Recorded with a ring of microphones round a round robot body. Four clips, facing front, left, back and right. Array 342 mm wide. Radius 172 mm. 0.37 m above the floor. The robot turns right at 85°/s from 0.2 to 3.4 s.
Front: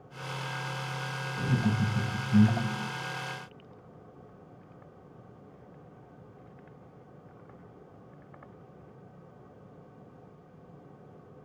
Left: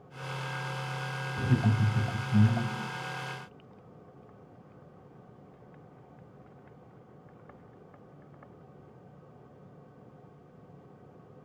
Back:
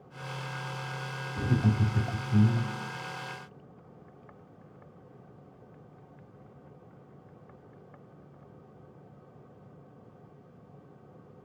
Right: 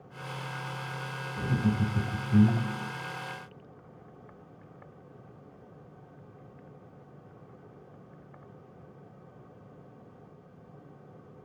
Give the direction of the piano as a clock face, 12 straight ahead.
No piano in this recording.